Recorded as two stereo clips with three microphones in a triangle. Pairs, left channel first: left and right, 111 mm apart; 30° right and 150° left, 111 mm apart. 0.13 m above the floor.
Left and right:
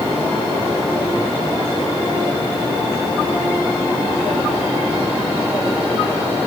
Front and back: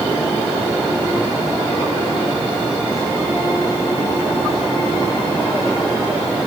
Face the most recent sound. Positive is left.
No sound to turn to.